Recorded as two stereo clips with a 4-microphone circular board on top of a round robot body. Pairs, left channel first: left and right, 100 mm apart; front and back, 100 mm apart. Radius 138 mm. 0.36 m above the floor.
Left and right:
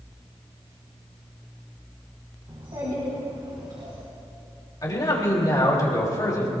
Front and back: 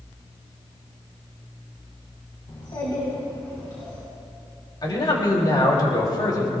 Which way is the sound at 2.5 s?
45° right.